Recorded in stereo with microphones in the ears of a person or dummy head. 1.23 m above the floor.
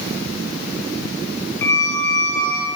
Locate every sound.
1.6 s a squeak: 10° left (ahead or behind), 2 m